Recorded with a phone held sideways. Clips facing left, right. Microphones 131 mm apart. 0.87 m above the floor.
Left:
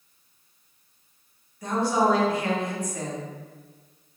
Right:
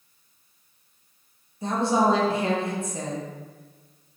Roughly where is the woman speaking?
Right.